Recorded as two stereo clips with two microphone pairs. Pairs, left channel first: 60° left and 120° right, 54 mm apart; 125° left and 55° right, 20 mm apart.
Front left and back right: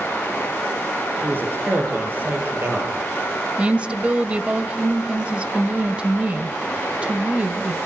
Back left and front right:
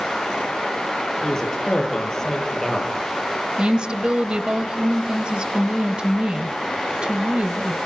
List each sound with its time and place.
1.2 s a man speaking: 170° right, 10 m
3.6 s a woman speaking: 60° right, 1.4 m